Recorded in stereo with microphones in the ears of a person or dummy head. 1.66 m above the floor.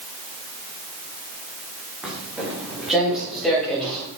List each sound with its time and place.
2.0 s footsteps: 5° right (ahead or behind), 8 m; by 4.1 s centre (ahead or behind), 10 m